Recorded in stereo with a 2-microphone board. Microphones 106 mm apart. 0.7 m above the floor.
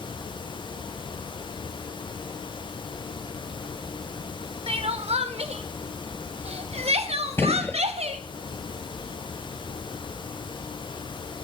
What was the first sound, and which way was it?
Crying, 80° right.